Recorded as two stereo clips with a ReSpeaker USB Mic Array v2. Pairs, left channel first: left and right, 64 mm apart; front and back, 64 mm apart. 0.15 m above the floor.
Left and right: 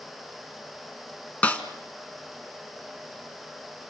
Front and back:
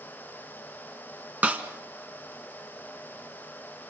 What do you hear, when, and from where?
1.4 s a snare drum: 140° left, 1.5 m